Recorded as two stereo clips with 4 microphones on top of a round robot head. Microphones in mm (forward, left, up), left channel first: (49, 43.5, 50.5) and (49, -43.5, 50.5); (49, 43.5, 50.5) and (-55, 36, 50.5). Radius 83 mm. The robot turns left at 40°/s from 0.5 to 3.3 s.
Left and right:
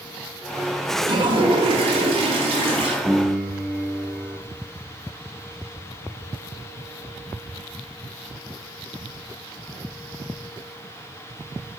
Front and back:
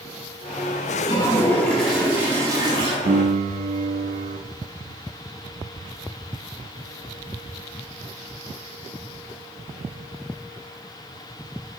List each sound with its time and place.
1.0 s a toilet flushing: 55° right, 1.3 m; by 3.0 s 130° right, 1.3 m
3.0 s a piano: 160° right, 0.5 m; by 4.4 s 170° right, 0.5 m